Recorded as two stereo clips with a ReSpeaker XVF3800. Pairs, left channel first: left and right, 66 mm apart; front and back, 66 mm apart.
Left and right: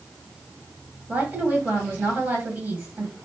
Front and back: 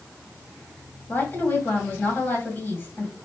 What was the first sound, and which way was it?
A woman speaking, 40° right.